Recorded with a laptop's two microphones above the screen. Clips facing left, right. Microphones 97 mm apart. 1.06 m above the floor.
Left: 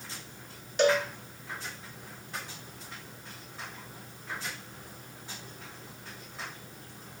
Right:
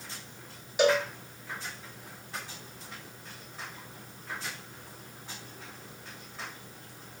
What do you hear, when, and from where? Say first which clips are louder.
0.8 s a cowbell: even; 10° right (ahead or behind), 3 m